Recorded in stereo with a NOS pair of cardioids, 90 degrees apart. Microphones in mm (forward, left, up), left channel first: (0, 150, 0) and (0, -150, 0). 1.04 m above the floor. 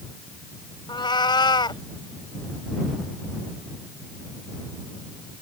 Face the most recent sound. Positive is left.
turn(degrees=15)